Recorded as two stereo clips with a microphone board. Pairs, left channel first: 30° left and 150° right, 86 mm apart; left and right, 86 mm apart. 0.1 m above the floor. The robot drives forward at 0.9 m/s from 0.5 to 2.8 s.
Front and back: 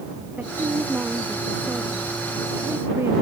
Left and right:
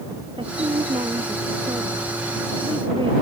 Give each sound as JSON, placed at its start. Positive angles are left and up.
{"t": 0.4, "sound": "a woman speaking", "azimuth_deg": -80}